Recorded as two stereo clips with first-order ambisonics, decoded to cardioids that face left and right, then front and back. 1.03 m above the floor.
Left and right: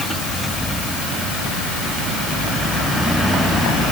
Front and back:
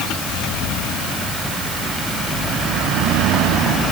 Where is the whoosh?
No whoosh in this recording.